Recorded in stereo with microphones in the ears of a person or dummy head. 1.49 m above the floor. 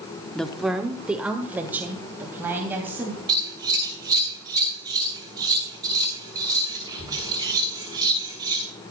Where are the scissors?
15° right (ahead or behind), 3 m.